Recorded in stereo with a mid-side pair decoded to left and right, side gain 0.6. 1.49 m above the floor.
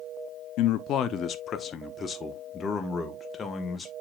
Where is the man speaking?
70° left, 0.6 m; by 3.9 s 20° left, 2 m.